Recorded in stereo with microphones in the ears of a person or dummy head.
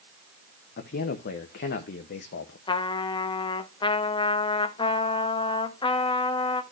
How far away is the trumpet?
About 0.6 m.